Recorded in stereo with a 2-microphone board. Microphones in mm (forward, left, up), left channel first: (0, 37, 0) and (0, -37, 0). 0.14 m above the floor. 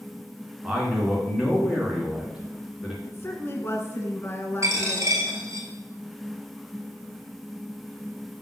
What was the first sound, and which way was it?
A man speaking, 10° right (ahead or behind).